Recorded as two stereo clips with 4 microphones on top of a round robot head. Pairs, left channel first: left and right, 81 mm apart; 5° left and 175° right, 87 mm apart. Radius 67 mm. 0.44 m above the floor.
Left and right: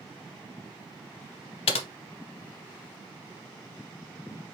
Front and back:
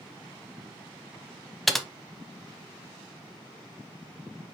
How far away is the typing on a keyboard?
About 0.6 m.